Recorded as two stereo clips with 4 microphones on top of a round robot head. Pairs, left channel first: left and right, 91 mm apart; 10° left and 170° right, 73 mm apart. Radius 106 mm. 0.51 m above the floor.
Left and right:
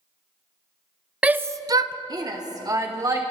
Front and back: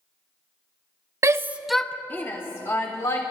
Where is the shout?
160° right, 0.8 m; by 3.2 s 40° right, 2.5 m.